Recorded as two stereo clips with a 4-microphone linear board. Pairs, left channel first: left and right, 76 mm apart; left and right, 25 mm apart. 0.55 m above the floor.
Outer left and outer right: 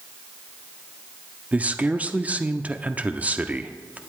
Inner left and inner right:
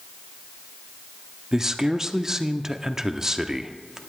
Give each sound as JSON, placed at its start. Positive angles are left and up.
{"t": 1.5, "sound": "a man speaking", "side_deg": -20, "distance_m": 0.6}